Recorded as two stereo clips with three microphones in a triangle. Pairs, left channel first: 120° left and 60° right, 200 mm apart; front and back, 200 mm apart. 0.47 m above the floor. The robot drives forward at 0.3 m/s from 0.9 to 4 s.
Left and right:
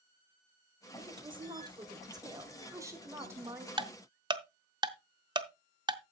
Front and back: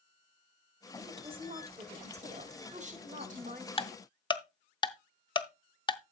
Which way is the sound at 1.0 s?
120° right.